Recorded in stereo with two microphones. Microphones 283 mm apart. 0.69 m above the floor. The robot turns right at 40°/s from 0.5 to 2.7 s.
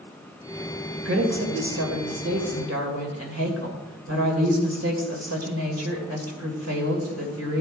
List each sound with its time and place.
1.1 s a woman speaking: 130° right, 2.5 m; by 7.6 s 65° right, 2.5 m